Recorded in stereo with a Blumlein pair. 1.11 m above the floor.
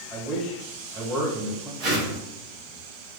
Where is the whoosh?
35° right, 1.1 m.